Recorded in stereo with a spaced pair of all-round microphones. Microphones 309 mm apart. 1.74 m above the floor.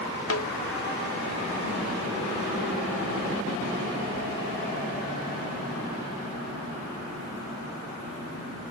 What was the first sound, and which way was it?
A snare drum, 45° left (ahead or behind).